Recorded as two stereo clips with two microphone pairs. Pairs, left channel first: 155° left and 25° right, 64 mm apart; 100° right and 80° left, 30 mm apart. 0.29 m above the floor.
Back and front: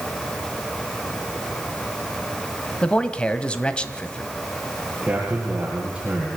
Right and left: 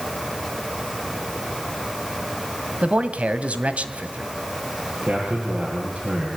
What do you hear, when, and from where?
2.8 s a man speaking: 90° left, 1.6 m
5.0 s a man speaking: 50° left, 6.5 m